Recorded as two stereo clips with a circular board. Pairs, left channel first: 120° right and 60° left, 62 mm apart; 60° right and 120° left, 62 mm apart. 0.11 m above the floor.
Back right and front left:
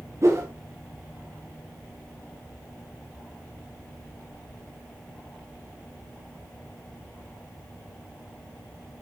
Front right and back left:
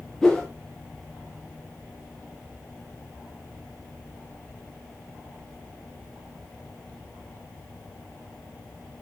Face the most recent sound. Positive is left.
turn(degrees=20)